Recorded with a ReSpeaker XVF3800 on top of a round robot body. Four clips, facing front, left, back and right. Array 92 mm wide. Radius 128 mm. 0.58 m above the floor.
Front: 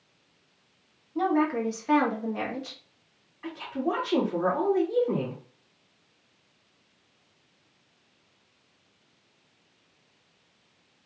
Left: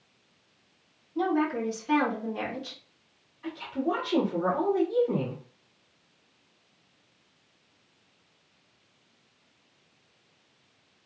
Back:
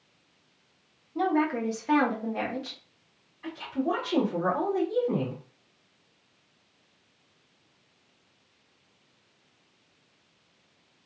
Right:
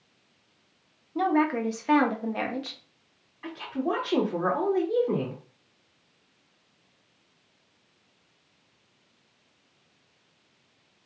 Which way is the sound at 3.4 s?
55° right.